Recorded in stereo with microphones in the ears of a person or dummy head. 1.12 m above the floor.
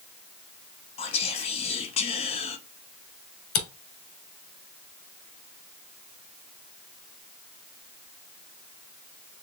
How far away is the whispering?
About 0.7 m.